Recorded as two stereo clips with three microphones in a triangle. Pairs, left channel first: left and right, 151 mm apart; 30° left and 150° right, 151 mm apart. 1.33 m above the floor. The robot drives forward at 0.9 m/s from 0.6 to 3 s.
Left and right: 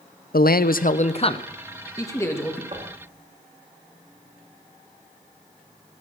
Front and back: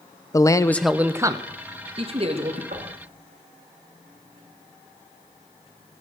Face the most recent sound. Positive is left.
turn(degrees=-140)